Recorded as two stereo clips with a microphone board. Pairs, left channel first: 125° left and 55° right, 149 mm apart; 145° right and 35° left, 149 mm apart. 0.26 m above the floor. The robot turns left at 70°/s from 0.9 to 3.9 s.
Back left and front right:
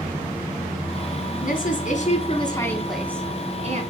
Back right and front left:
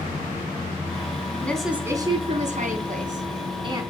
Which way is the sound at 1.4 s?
140° left.